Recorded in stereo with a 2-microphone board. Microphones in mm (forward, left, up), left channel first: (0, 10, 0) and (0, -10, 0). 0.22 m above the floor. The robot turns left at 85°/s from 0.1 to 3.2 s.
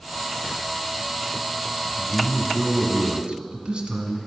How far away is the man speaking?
About 1.4 m.